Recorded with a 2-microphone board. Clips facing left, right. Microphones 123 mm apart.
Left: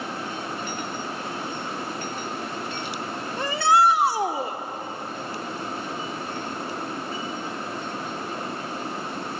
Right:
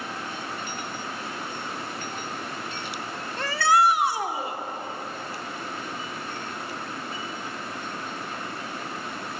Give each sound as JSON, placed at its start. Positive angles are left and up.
{"t": 3.4, "sound": "a shout", "side_deg": 15, "distance_m": 1.2}